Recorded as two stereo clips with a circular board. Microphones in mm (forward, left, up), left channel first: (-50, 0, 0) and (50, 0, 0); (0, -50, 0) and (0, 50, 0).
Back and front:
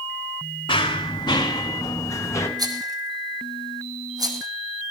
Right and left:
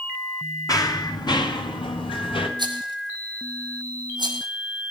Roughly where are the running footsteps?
Behind right.